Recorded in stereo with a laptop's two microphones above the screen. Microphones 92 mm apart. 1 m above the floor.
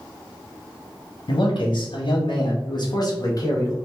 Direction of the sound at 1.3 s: 65° left (ahead or behind).